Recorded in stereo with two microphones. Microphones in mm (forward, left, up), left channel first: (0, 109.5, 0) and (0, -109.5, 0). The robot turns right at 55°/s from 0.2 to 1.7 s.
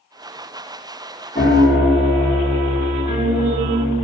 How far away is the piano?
About 1.5 m.